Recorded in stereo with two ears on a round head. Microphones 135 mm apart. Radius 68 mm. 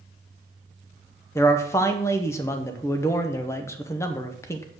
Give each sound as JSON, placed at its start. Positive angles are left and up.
{"t": 1.4, "sound": "a man speaking", "side_deg": 20, "distance_m": 0.8}